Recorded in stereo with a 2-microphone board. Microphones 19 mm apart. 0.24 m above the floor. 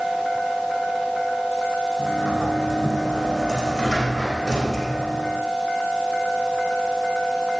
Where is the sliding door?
35° left (ahead or behind), 3.5 m.